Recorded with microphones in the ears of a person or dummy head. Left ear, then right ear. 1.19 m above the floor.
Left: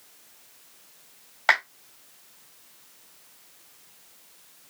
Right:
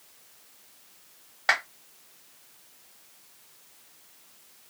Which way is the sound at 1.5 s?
20° left (ahead or behind).